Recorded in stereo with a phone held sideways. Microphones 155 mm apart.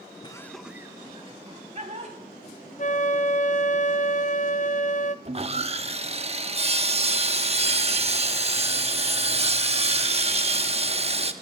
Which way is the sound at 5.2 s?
40° right (ahead or behind).